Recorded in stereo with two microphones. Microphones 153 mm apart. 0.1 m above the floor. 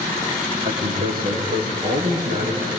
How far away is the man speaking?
About 5.5 m.